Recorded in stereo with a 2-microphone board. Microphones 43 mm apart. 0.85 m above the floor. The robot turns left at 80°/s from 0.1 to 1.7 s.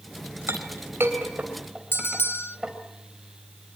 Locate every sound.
0.5 s a clink: 70° right (ahead or behind), 3 m; by 2.7 s 15° right (ahead or behind), 3 m
1.9 s a bell: 60° left (ahead or behind), 0.7 m